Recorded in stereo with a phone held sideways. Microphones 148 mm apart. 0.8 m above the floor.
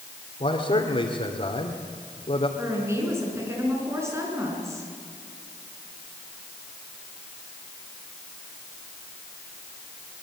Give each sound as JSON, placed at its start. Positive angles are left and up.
{"t": 0.4, "sound": "a man speaking", "side_deg": 45, "distance_m": 2.5}
{"t": 2.6, "sound": "a woman speaking", "side_deg": -20, "distance_m": 8.0}